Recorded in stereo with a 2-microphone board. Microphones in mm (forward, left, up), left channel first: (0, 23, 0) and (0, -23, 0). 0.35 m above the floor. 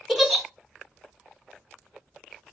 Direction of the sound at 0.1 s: 5° right (ahead or behind).